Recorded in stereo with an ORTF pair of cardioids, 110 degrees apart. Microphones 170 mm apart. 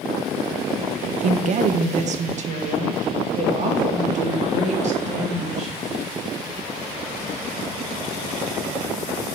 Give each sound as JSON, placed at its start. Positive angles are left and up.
{"t": 1.2, "sound": "a woman speaking", "azimuth_deg": -45, "distance_m": 0.9}